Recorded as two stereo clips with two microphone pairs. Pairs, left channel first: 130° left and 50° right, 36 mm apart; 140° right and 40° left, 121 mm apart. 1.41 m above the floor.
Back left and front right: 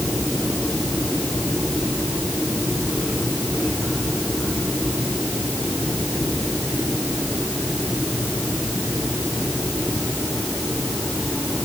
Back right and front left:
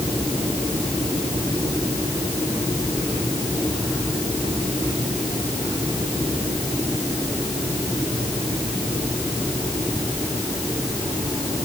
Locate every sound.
Only background noise.